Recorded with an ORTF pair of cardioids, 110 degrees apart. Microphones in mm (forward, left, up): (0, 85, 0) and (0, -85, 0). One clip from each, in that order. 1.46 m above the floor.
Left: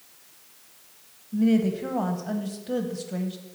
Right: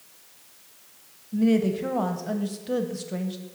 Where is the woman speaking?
10° right, 1.0 m.